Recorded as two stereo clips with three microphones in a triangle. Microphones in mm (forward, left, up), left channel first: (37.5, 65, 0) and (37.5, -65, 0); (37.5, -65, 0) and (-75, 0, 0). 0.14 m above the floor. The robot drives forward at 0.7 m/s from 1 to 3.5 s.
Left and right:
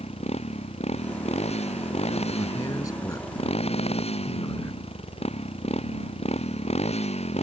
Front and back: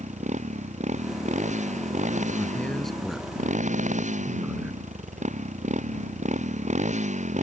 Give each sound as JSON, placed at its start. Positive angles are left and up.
{"t": 0.0, "sound": "a motorcycle", "azimuth_deg": 125}
{"t": 2.4, "sound": "a man speaking", "azimuth_deg": 40}